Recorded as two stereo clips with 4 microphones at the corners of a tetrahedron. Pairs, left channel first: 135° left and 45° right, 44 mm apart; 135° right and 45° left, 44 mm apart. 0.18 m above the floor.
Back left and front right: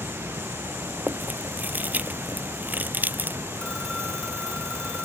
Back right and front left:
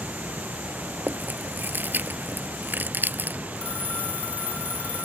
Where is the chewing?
5° left.